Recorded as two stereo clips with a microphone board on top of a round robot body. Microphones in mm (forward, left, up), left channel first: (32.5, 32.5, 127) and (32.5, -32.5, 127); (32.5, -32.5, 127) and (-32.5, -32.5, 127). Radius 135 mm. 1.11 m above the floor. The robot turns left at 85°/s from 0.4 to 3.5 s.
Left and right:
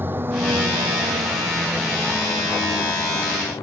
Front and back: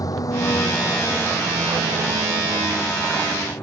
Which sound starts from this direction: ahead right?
A vehicle, at 0.0 s.